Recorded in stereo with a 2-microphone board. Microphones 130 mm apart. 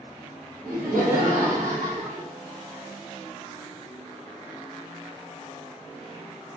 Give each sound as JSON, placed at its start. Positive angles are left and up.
{"t": 0.6, "sound": "laughter", "side_deg": -85, "distance_m": 1.1}